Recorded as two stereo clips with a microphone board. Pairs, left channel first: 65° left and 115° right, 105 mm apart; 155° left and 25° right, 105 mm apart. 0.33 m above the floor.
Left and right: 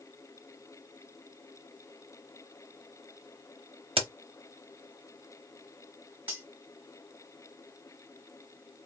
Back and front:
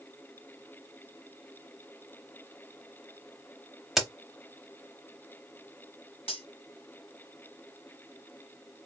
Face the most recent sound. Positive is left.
turn(degrees=175)